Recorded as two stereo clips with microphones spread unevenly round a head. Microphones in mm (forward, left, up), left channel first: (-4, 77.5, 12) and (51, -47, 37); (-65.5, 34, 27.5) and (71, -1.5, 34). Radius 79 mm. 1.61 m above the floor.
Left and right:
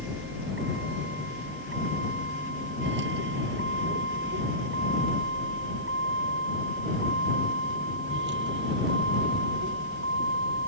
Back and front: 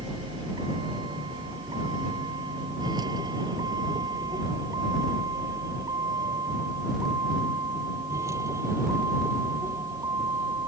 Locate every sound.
0.0 s a vehicle: 75° right; by 10.7 s 90° right